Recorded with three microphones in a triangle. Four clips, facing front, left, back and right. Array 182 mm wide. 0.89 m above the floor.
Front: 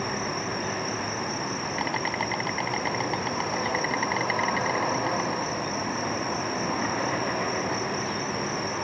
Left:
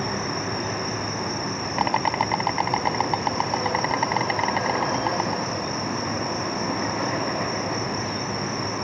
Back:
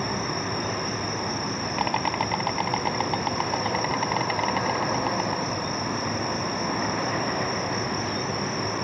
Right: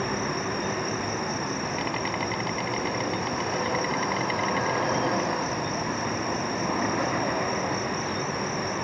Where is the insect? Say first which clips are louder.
Left 1 dB, back 1 dB; 105° left.